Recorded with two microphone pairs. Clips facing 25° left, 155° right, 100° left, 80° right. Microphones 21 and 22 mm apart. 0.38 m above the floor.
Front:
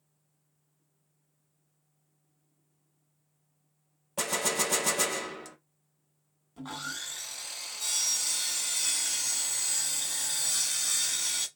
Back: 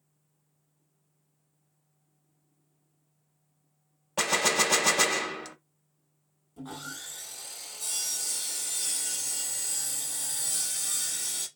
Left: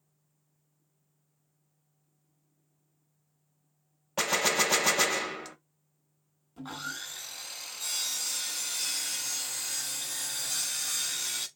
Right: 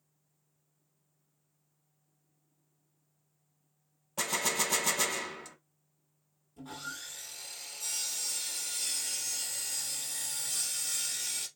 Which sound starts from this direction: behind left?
A gunshot, at 4.2 s.